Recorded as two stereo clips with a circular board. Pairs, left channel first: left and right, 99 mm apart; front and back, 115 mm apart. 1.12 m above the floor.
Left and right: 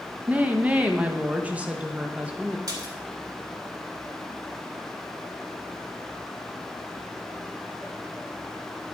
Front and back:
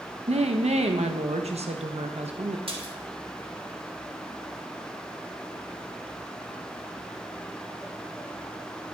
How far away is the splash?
About 2.5 m.